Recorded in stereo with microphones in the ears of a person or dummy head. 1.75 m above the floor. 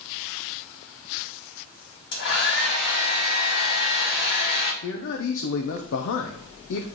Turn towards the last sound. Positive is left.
turn(degrees=65)  # may be behind; listen again after turning